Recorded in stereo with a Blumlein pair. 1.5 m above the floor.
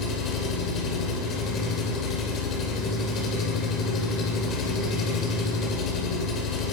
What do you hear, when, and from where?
0.0 s an engine running: 30° left, 6 m